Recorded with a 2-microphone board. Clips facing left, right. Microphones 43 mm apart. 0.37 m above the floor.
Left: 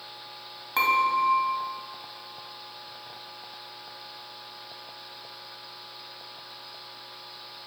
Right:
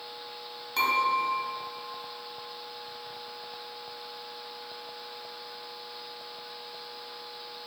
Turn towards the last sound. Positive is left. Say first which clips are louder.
# left 3 dB
turn(degrees=30)  # may be behind; listen again after turning